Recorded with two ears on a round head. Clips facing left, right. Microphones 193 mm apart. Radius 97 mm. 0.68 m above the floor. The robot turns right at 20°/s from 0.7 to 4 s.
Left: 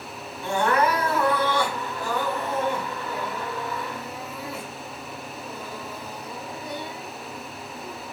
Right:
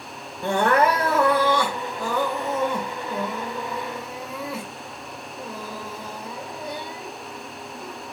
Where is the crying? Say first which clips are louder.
Right 3 dB; 130° right, 1.5 m; by 8.0 s 65° right, 1.5 m.